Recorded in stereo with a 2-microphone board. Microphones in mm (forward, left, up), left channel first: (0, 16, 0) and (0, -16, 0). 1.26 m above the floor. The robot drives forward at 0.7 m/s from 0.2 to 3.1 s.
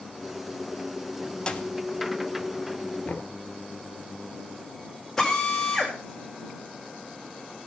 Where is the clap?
30° left (ahead or behind), 1.8 m; by 1.7 s 25° left (ahead or behind), 1.9 m.